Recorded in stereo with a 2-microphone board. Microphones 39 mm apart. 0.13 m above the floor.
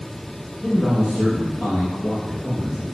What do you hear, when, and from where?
0.6 s a man speaking: 60° left (ahead or behind), 4 m